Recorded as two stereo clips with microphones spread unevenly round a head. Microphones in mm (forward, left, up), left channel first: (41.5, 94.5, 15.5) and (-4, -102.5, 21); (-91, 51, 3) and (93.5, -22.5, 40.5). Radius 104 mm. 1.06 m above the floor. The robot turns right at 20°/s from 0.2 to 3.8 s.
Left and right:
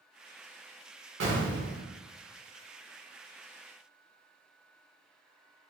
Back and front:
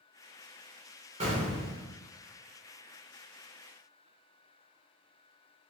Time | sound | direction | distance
1.2 | an explosion | 85° right | 1.4 m